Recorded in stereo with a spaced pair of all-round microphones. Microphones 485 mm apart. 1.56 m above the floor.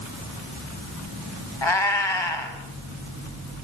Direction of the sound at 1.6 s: 65° left (ahead or behind).